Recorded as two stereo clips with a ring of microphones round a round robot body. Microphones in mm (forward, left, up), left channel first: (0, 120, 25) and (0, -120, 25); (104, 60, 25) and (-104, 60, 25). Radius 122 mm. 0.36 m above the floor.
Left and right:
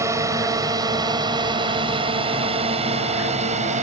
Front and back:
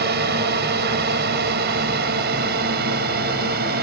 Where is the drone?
165° right; by 3.8 s 145° right.